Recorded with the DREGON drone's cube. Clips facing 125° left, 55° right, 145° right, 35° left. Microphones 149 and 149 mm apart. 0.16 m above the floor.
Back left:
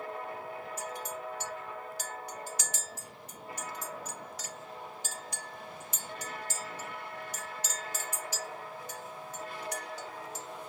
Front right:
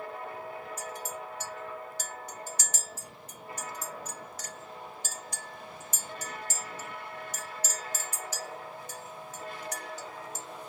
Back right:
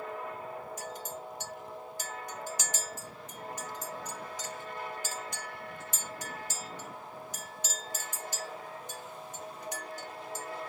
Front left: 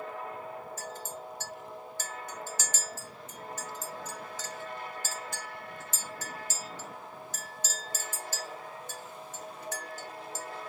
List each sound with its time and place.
0.8 s a clink: 75° right, 1.3 m